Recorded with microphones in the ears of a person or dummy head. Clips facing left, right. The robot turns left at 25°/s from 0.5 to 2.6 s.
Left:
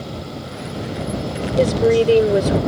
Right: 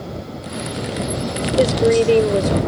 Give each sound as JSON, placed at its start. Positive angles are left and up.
{"t": 1.6, "sound": "a woman speaking", "side_deg": -10}